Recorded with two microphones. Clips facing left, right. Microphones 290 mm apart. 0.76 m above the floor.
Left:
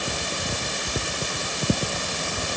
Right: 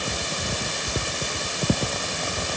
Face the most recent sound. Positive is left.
No sound to turn to.